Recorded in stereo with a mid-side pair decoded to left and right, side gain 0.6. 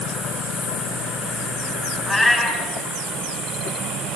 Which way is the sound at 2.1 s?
10° left.